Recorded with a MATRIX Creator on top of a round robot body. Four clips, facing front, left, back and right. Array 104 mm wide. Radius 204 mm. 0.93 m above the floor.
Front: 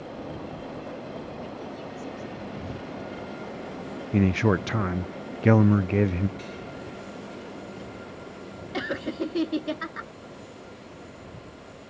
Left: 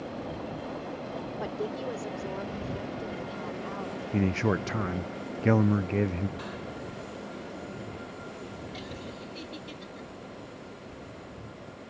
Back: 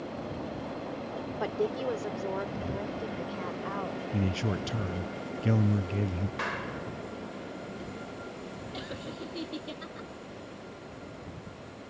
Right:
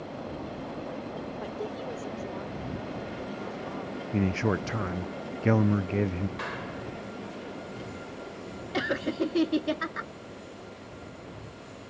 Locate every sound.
1.4 s a woman speaking: 170° left; by 4.0 s 165° left
4.1 s a man speaking: straight ahead
6.4 s a clap: 155° right
8.7 s laughter: 55° right